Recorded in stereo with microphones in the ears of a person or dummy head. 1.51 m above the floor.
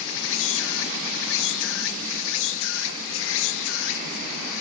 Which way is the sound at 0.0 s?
75° left (ahead or behind).